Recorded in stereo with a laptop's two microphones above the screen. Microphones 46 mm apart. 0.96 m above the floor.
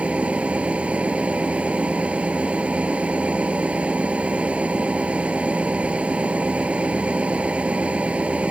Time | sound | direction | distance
0.0 | a machine running | 30° right (ahead or behind) | ?